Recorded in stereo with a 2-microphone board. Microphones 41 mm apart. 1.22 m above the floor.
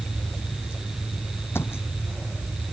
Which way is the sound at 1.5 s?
70° left (ahead or behind).